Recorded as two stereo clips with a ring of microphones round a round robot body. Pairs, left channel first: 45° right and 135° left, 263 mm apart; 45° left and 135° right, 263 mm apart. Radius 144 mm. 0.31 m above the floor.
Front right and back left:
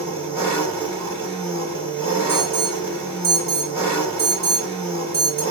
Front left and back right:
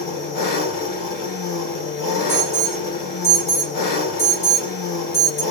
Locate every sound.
0.0 s an engine running: 55° left, 1.5 m
2.3 s an alarm: 60° left, 1.7 m